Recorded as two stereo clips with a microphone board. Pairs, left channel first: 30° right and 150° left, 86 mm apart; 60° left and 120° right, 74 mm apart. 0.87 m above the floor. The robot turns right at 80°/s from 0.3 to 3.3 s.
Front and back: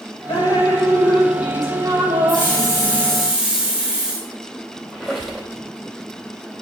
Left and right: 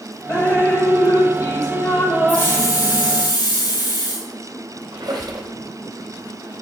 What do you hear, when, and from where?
0.3 s dripping: 20° right, 2.0 m; by 3.1 s 155° right, 2.0 m
2.3 s a hiss: 10° right, 1.9 m; by 4.3 s 70° left, 1.9 m
4.9 s a squeak: 125° right, 2.5 m